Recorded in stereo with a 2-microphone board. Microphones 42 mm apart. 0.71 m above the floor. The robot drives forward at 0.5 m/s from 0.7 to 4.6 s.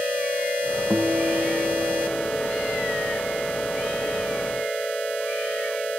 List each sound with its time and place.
0.9 s a guitar: 75° right (ahead or behind)